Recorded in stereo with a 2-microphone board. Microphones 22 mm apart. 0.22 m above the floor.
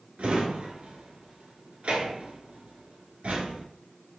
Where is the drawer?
65° right (ahead or behind), 1.1 m.